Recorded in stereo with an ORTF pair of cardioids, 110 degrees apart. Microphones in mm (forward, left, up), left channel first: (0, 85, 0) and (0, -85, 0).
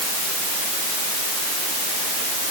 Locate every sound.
Only background noise.